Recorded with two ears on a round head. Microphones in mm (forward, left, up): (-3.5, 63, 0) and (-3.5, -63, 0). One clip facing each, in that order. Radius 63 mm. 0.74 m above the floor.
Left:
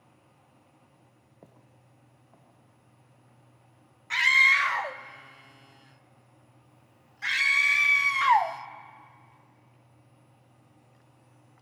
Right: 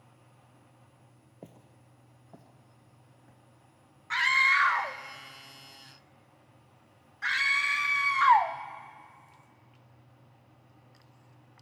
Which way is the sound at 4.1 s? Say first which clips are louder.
Even; 25° left (ahead or behind).